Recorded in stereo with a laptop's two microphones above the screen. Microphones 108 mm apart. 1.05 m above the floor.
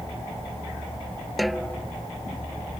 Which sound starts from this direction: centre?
A snare drum, at 1.4 s.